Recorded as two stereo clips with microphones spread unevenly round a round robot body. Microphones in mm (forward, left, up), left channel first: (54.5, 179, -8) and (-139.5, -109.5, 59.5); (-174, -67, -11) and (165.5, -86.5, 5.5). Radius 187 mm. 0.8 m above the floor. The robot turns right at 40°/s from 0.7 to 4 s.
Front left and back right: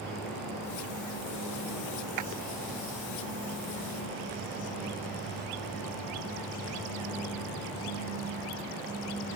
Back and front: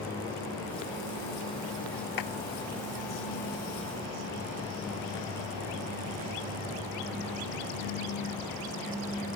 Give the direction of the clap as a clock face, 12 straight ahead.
5 o'clock.